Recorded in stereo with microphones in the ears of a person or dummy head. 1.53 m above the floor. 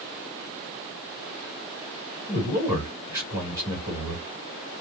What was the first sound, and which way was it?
A man speaking, 15° right (ahead or behind).